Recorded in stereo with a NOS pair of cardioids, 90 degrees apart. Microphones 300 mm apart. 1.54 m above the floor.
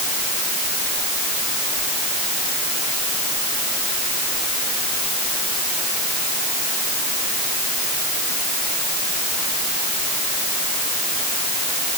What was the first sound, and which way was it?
Only background noise.